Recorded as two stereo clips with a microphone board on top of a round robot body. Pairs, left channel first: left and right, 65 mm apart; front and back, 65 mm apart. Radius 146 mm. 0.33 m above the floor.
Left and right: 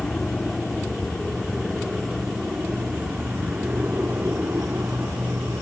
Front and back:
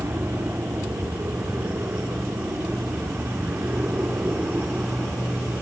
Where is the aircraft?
170° left; by 5.6 s 125° right.